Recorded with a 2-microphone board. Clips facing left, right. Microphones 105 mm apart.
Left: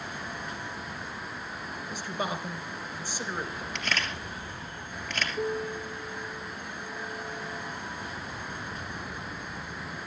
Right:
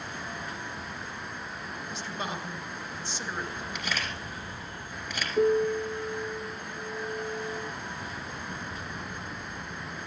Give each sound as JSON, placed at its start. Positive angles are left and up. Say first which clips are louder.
{"t": 1.9, "sound": "a man speaking", "louder": "left 3 dB", "side_deg": 15, "distance_m": 3.0}
{"t": 3.8, "sound": "a camera shutter", "louder": "left 2 dB", "side_deg": -10, "distance_m": 4.0}
{"t": 5.4, "sound": "a piano", "louder": "right 10 dB", "side_deg": -80, "distance_m": 0.6}